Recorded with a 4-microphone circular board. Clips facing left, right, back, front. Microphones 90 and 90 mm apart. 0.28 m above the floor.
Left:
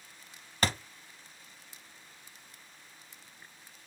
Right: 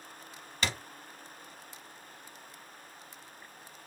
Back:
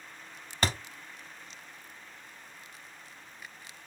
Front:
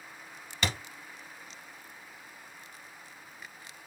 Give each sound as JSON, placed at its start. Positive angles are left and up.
{"t": 0.6, "sound": "a thud", "azimuth_deg": 135, "distance_m": 0.7}